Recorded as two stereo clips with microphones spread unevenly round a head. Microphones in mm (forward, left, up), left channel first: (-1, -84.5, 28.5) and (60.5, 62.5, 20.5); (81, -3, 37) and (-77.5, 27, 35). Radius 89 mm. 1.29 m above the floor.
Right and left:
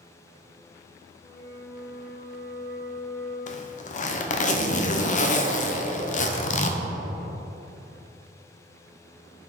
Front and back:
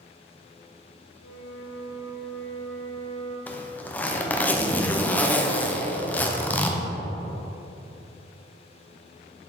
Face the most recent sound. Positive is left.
turn(degrees=-90)